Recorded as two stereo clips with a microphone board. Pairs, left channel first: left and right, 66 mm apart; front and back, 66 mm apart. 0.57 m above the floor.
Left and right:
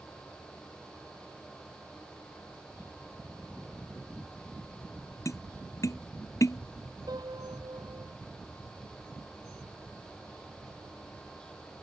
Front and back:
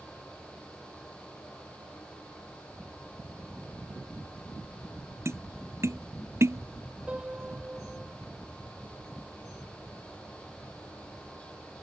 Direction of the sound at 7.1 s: 105° right.